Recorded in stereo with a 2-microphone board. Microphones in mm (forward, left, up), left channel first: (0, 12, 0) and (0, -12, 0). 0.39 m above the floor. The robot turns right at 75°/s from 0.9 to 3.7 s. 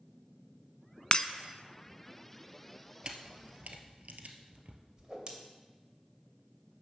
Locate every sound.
1.1 s breaking glass: 40° left (ahead or behind), 0.6 m; by 1.3 s 30° left (ahead or behind), 0.6 m
3.0 s a camera shutter: 40° right (ahead or behind), 1.3 m; by 4.8 s 80° right, 1.3 m
5.0 s a whoosh: 30° right (ahead or behind), 2.0 m